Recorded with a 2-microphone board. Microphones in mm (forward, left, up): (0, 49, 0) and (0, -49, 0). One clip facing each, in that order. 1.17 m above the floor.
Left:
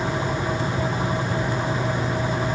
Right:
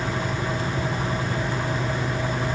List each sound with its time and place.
Only background noise.